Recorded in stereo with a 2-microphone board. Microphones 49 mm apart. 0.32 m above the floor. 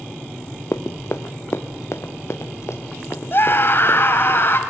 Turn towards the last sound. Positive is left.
turn(degrees=50)  # may be behind; listen again after turning